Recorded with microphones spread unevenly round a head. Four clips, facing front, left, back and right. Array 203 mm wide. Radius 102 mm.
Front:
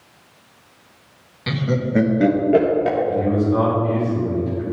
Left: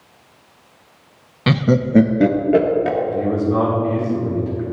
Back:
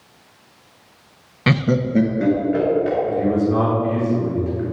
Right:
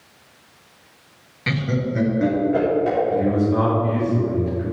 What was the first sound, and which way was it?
Laughter, 135° left.